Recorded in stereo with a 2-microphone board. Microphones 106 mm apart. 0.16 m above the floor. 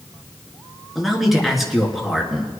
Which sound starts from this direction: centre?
A man speaking, at 0.9 s.